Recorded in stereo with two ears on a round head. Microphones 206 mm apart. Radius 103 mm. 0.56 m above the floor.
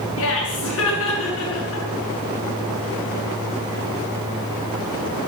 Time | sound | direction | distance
0.2 | laughter | 60° left (ahead or behind) | 5.5 m